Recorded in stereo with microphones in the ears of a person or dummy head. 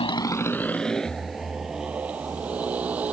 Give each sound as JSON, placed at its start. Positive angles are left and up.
{"t": 0.0, "sound": "a motorcycle", "side_deg": 30}